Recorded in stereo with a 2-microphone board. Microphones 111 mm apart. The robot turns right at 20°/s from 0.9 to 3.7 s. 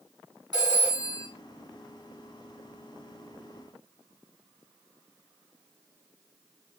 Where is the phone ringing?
40° right (ahead or behind), 1.7 m; by 1.3 s 50° right (ahead or behind), 1.7 m.